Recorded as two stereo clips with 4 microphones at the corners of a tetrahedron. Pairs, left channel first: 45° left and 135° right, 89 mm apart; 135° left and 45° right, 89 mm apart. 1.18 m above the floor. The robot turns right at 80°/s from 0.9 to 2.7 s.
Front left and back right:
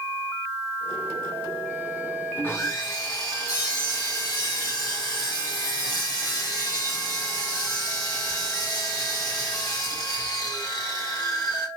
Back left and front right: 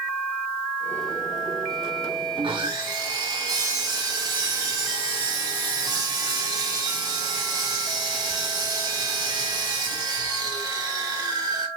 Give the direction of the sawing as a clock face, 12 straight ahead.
1 o'clock.